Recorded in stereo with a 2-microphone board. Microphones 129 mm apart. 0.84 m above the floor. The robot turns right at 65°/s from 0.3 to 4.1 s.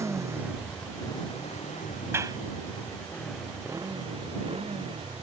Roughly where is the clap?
Centre.